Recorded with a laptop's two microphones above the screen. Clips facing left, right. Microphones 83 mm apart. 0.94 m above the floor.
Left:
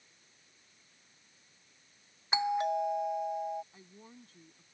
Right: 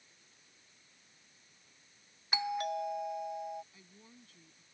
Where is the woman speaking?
35° left (ahead or behind).